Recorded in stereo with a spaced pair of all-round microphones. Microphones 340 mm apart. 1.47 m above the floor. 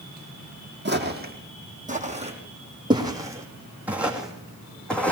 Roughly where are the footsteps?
Right.